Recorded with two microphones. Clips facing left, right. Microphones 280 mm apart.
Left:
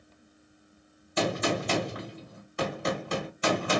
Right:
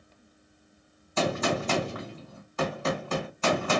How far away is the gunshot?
About 1.7 m.